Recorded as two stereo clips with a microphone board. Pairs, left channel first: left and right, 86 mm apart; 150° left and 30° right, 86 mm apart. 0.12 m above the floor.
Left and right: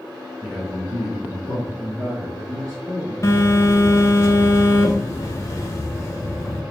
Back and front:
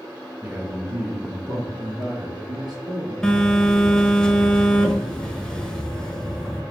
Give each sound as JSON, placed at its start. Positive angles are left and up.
{"t": 0.4, "sound": "a man speaking", "azimuth_deg": -10, "distance_m": 1.1}
{"t": 3.2, "sound": "a phone buzzing", "azimuth_deg": 70, "distance_m": 0.6}